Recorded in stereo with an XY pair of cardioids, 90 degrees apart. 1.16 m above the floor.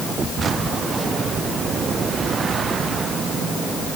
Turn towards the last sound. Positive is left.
No sound to turn to.